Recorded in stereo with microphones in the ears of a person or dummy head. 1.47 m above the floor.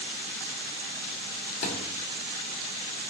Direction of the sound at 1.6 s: 45° left (ahead or behind).